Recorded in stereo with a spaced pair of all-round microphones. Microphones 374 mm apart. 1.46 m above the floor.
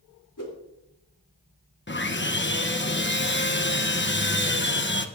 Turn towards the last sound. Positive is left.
turn(degrees=30)  # may be behind; listen again after turning